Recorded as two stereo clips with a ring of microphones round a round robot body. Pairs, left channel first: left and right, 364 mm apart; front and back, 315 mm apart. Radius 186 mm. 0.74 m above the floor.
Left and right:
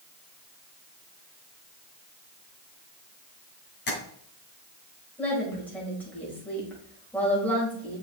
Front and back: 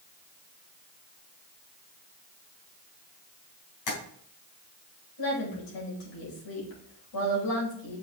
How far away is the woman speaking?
About 4.5 m.